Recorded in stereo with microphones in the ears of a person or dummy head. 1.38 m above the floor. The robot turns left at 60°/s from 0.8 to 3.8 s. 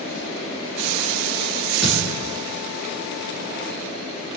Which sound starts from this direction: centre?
A thud, at 1.8 s.